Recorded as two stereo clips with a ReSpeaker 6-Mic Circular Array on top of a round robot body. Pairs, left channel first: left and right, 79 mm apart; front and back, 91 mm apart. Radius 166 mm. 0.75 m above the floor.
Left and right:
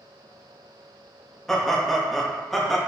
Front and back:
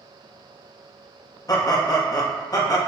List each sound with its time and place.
1.5 s laughter: 5° left, 1.2 m